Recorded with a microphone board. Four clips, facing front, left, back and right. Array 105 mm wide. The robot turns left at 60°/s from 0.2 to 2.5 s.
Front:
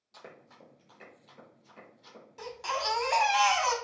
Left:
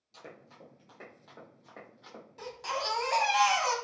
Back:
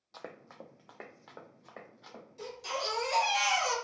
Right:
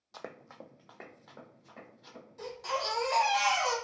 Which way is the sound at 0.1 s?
120° right.